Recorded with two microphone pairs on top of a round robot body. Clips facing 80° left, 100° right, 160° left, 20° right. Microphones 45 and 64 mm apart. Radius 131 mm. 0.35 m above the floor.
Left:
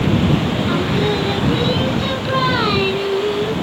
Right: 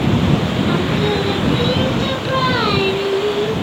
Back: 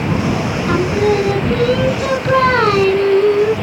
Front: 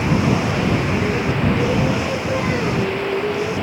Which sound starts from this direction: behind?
Singing, at 0.7 s.